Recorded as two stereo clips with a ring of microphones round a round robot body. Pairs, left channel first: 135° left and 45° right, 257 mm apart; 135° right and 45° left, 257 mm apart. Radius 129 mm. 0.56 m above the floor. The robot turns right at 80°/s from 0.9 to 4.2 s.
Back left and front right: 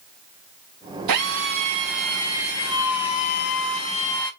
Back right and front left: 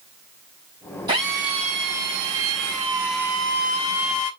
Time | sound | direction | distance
1.1 | a drill | 30° right | 4.5 m